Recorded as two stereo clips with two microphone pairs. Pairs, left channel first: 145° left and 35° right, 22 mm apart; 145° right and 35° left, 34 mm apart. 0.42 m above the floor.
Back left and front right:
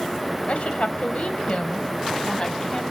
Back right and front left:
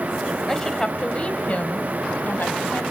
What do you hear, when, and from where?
0.5 s a woman speaking: 135° left, 1.9 m; by 2.8 s 160° right, 2.5 m